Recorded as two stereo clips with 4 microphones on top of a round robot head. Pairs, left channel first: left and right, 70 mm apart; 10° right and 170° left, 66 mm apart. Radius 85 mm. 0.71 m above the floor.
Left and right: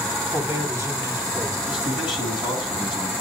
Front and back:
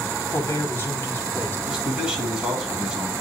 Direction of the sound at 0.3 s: 45° left.